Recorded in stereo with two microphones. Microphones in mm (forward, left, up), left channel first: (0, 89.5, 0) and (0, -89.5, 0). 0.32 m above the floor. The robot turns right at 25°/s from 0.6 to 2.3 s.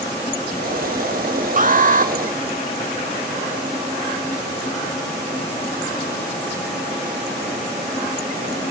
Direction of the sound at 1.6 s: 50° right (ahead or behind).